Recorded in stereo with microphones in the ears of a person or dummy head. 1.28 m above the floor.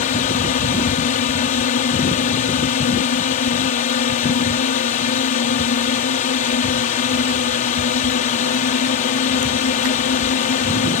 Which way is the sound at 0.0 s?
40° left (ahead or behind).